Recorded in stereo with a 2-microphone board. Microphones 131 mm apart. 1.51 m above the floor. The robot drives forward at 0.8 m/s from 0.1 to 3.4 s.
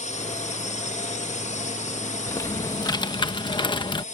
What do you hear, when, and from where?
0.0 s a drone: 60° left (ahead or behind); by 4.1 s 65° left (ahead or behind)
2.3 s typing on a keyboard: 20° left (ahead or behind); by 4.0 s 35° left (ahead or behind)